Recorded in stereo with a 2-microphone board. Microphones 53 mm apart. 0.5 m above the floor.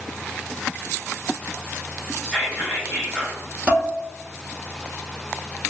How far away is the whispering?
About 0.9 m.